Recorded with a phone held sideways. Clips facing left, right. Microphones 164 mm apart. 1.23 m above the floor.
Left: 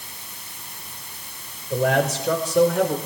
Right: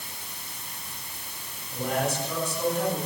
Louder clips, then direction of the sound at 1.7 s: Left 7 dB; 80° left.